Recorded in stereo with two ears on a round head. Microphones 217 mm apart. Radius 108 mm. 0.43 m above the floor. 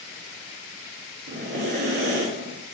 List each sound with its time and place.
1.3 s breathing: 50° right (ahead or behind), 0.7 m